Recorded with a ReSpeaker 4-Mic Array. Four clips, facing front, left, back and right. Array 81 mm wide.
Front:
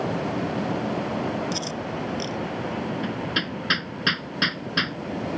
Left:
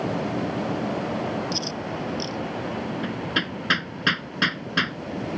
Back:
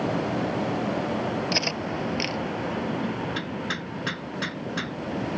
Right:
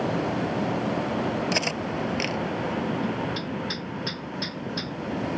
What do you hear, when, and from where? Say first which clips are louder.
1.5 s cutlery clinking: right 2 dB, back 1 dB; 120° right
3.0 s hammering: left 1 dB, front 1 dB; 70° left